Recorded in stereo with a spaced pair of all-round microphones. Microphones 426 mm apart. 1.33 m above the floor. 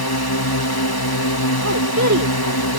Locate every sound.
0.0 s a drone: 55° left (ahead or behind)
1.6 s a woman speaking: 40° right (ahead or behind)